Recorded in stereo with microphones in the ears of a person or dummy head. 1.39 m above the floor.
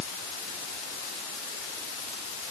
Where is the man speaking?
No man speaking in this recording.